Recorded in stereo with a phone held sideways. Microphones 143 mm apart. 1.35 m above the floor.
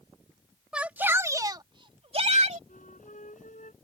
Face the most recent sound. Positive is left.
turn(degrees=60)  # may be behind; listen again after turning